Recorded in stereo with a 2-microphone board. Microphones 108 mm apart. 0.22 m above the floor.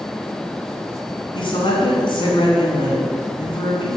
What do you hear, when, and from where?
1.4 s a woman speaking: 50° left (ahead or behind), 1.8 m